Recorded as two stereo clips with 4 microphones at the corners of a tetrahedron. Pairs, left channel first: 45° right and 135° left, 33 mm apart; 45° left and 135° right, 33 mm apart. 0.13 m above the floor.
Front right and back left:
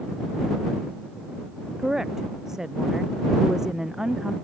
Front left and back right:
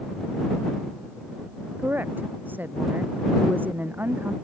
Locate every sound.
1.8 s a woman speaking: 150° right